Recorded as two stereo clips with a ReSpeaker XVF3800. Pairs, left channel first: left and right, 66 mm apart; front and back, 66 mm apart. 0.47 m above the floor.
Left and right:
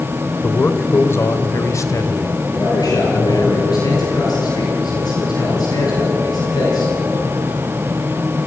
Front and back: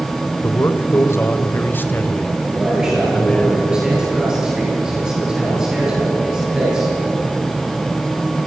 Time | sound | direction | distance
0.4 | a man speaking | 30° left | 1.5 m
2.5 | a man speaking | 100° left | 9 m